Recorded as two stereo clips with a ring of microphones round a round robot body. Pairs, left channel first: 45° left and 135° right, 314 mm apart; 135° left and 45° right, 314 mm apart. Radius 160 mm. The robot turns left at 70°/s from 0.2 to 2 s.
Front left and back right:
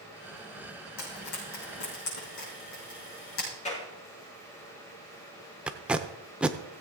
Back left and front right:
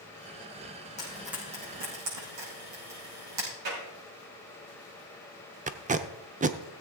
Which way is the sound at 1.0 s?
65° left.